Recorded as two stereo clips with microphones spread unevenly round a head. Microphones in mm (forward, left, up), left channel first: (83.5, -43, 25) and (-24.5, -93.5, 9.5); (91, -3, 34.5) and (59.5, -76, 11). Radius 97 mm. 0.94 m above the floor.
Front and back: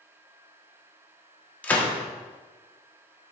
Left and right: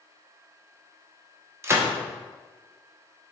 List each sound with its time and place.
1.6 s a gunshot: 55° right, 1.2 m